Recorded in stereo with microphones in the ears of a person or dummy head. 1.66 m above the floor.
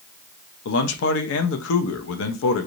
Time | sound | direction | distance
0.7 | a man speaking | 75° left (ahead or behind) | 0.7 m